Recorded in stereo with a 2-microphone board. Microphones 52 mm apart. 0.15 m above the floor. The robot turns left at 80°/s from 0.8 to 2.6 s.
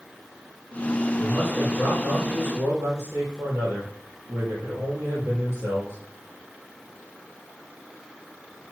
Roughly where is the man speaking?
Ahead left.